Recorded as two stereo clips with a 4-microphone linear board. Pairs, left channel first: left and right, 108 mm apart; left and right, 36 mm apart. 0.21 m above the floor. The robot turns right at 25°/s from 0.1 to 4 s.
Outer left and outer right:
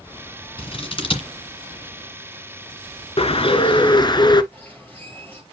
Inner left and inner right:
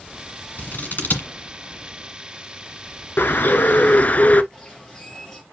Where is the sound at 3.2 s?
60° left (ahead or behind), 0.6 m; by 4.4 s 40° left (ahead or behind), 0.6 m.